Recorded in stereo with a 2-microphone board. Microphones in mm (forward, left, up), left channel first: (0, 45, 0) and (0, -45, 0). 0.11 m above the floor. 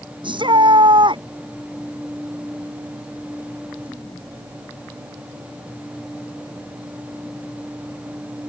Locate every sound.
0.2 s a shout: 65° right (ahead or behind)